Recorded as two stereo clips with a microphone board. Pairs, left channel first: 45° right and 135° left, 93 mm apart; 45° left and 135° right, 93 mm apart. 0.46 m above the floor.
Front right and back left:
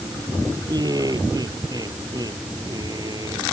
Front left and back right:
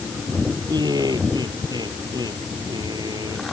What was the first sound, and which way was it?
Laughter, straight behind.